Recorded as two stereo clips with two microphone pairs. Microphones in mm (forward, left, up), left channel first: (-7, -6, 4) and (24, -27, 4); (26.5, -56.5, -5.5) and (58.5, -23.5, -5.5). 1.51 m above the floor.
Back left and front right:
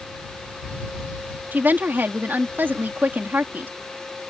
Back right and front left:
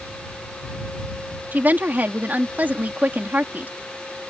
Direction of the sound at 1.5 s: 5° right.